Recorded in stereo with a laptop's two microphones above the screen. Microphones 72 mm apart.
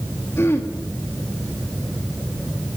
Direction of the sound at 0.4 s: 35° left (ahead or behind).